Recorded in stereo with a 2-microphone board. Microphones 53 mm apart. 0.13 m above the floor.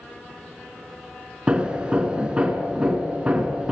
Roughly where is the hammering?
Right.